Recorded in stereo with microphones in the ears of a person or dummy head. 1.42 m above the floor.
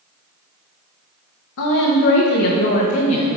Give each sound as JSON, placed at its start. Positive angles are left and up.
{"t": 1.6, "sound": "a woman speaking", "side_deg": 75, "distance_m": 1.1}